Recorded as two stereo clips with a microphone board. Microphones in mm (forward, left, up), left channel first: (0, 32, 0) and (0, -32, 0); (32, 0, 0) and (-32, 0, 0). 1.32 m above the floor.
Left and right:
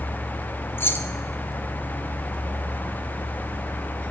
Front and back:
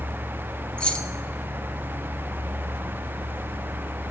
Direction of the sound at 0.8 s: 65° left.